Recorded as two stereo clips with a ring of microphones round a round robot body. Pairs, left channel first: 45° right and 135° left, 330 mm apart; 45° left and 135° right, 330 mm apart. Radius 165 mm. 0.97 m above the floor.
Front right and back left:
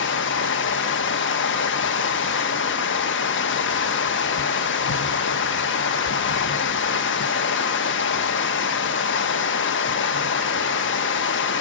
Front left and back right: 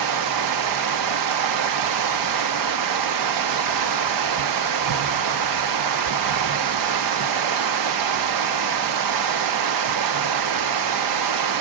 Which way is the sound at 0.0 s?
100° right.